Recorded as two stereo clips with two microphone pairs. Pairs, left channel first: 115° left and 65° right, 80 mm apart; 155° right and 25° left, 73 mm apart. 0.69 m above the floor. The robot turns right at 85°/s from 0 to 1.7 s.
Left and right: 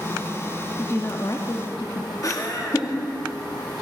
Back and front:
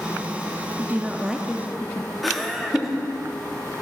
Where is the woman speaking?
65° left, 0.7 m; by 2.1 s 140° left, 0.7 m.